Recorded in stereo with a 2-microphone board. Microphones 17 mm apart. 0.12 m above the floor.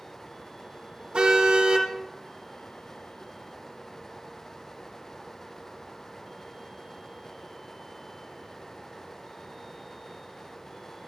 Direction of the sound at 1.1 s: 75° right (ahead or behind).